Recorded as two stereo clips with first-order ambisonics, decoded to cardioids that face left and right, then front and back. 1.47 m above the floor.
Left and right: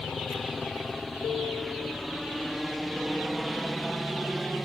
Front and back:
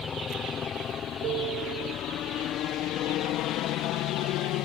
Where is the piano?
150° left.